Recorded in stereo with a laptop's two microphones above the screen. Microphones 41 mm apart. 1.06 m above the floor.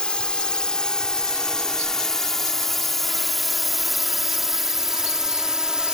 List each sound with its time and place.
0.0 s a drone: 25° left (ahead or behind); by 5.9 s 20° right (ahead or behind)